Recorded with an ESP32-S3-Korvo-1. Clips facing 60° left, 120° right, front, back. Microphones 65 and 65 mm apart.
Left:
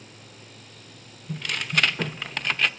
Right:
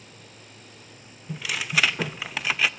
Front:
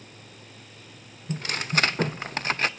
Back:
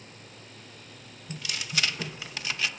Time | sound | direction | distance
1.3 | tearing paper | 35° right | 0.6 m